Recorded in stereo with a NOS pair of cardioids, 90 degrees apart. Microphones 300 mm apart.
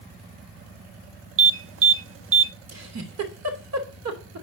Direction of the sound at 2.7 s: 60° right.